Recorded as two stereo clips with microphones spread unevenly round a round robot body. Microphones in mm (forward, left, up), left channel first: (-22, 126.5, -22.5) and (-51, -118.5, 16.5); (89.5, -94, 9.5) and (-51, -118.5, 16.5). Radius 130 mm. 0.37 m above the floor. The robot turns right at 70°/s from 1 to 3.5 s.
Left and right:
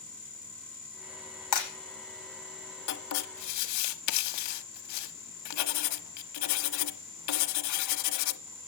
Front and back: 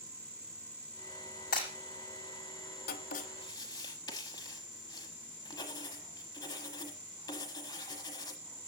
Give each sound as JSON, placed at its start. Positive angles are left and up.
{"t": 1.5, "sound": "breaking glass", "azimuth_deg": 60, "distance_m": 9.0}
{"t": 2.9, "sound": "writing", "azimuth_deg": 40, "distance_m": 0.9}